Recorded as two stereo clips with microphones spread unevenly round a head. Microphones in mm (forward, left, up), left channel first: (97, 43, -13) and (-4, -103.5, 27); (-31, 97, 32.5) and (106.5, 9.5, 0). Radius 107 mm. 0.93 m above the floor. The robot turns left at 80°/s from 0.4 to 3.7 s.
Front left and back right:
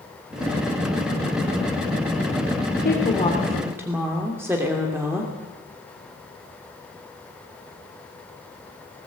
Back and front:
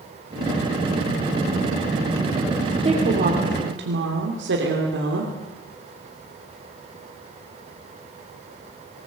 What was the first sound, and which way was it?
A woman speaking, 25° left.